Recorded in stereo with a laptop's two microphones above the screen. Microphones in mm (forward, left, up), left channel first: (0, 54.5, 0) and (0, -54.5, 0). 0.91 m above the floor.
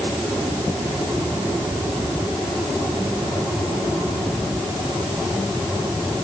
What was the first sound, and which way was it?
Only background noise.